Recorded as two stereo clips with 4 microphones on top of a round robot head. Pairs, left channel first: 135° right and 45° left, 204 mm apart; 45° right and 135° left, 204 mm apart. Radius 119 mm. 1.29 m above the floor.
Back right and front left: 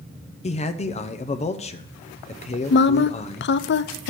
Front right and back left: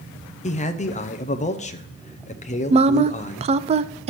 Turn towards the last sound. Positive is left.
turn(degrees=-165)